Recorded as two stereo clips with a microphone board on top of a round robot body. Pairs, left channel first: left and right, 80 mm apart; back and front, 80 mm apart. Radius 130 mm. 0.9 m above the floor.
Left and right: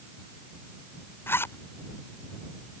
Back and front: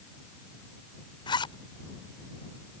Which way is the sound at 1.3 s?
155° left.